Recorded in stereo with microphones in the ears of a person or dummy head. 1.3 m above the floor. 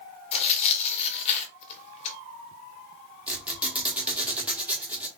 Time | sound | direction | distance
0.3 | tearing paper | 40° left (ahead or behind) | 0.7 m
3.3 | a squeak | 10° right (ahead or behind) | 1.0 m